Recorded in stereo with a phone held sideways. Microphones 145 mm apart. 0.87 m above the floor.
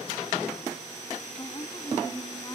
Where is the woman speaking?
25° left (ahead or behind).